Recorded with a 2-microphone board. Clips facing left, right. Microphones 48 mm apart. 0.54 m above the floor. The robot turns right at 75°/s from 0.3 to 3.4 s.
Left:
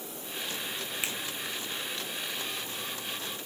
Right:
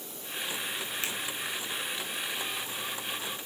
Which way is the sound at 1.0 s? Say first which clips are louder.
Left 1 dB; 20° left (ahead or behind).